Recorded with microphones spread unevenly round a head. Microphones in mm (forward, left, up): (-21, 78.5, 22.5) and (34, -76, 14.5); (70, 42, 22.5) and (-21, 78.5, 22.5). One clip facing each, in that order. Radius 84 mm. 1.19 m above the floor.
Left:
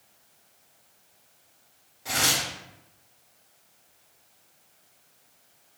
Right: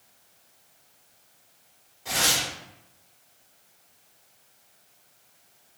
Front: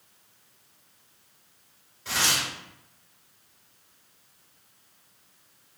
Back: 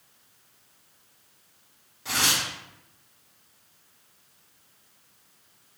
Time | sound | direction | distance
2.0 | tearing paper | 175° right | 1.8 m